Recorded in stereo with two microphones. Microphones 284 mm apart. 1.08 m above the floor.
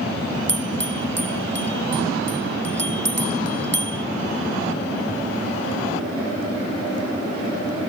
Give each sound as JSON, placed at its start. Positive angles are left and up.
{"t": 0.5, "sound": "a bell", "side_deg": -40}